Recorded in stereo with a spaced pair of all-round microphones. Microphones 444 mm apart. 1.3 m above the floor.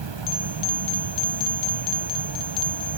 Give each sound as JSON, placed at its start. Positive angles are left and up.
{"t": 0.0, "sound": "an insect", "side_deg": -75}